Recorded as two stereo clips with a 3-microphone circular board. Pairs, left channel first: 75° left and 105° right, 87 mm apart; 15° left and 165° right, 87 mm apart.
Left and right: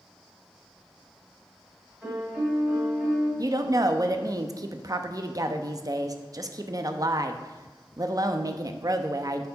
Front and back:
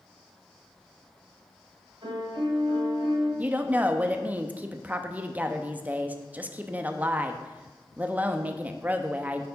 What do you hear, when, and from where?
2.0 s a piano: straight behind, 2.5 m
3.4 s a woman speaking: 105° right, 0.5 m